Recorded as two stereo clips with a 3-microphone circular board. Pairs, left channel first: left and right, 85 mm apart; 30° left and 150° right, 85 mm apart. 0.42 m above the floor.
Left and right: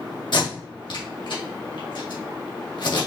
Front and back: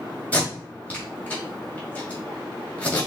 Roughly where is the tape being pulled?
Left.